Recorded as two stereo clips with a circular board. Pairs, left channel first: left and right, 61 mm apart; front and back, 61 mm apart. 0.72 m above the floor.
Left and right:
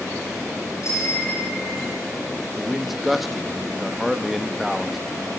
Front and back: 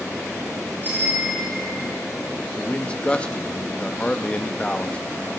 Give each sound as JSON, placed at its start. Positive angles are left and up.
{"t": 0.8, "sound": "a bicycle bell", "azimuth_deg": 125, "distance_m": 6.5}
{"t": 2.6, "sound": "a man speaking", "azimuth_deg": -10, "distance_m": 0.7}